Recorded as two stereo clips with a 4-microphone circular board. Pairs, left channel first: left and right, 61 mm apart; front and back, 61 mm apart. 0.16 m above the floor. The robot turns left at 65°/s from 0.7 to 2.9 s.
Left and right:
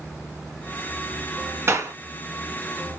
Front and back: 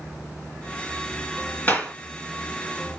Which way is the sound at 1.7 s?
60° right.